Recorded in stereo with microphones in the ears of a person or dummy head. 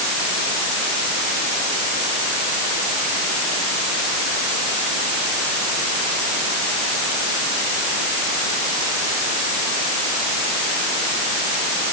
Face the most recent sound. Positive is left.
No sound to turn to.